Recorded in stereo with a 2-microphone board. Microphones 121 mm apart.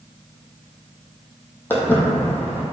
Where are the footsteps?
15° left (ahead or behind), 1.0 m.